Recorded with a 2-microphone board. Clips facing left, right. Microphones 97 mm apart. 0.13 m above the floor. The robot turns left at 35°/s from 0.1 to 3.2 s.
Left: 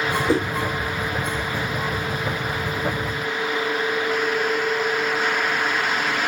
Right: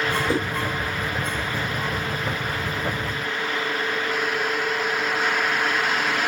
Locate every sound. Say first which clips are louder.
0.3 s a whoosh: left 6 dB; 25° left (ahead or behind), 1.9 m; by 0.5 s 20° left (ahead or behind), 1.9 m